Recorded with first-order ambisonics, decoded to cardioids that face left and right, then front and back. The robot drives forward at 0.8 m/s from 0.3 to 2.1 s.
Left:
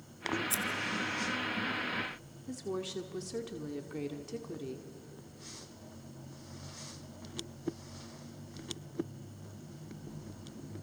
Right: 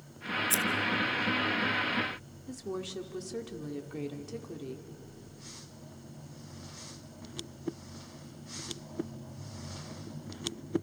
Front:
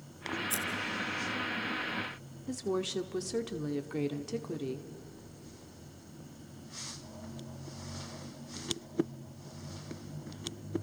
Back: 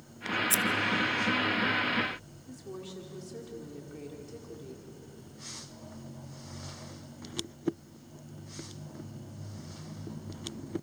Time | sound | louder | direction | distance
0.5 | scissors | right 5 dB, back 7 dB | 150° right | 1.1 m
2.5 | a woman speaking | even, front 10 dB | 5° left | 1.2 m